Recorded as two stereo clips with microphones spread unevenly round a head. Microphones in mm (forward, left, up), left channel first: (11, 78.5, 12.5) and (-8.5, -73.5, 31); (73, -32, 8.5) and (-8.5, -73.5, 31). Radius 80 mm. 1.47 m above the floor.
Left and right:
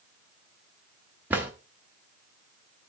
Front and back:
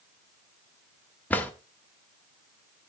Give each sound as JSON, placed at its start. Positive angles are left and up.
{"t": 1.3, "sound": "a drawer", "azimuth_deg": -60, "distance_m": 1.0}